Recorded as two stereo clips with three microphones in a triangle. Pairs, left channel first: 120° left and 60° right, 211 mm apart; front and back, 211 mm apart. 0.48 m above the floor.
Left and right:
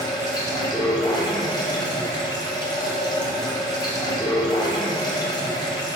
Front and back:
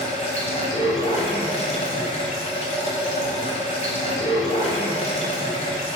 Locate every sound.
0.0 s running water: 50° left, 2 m